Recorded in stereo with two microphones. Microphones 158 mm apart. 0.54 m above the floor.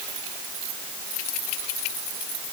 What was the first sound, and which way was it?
Only background noise.